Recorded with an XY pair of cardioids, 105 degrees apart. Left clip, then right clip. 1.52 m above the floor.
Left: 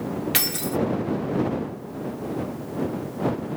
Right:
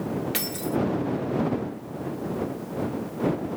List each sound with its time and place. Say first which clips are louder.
0.3 s keys jangling: left 3 dB; 45° left